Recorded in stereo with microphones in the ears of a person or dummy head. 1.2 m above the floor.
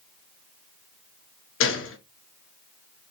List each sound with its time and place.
1.6 s a gunshot: 60° left (ahead or behind), 0.7 m